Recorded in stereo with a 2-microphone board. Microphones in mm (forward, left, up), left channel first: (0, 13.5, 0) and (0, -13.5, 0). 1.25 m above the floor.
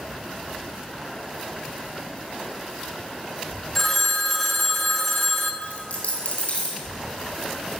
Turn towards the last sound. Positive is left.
turn(degrees=60)  # may be behind; listen again after turning